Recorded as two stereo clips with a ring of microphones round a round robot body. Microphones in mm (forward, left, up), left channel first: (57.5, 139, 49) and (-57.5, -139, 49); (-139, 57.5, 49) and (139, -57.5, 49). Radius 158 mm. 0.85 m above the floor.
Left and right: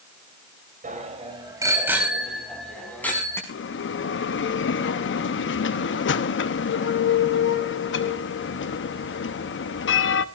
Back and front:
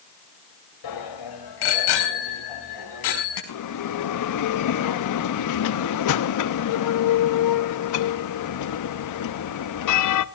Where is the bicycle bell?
Straight behind, 3 m; by 3.4 s 150° left, 6 m.